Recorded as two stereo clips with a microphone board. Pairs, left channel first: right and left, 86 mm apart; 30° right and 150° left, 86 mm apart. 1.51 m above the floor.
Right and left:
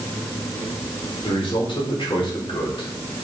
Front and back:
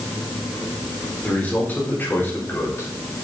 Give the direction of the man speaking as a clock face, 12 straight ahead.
3 o'clock.